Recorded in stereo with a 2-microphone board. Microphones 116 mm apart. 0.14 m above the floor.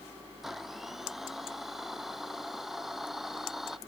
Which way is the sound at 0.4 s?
5° right (ahead or behind).